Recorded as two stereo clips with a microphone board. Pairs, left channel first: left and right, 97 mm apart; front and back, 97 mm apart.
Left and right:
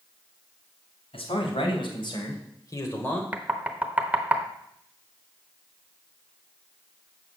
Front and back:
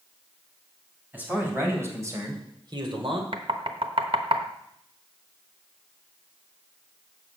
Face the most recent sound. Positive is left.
turn(degrees=-165)